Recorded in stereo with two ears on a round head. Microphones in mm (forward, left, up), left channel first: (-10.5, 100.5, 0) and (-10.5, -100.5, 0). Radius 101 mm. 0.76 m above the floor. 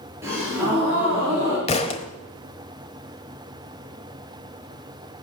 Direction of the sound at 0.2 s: 10° right (ahead or behind).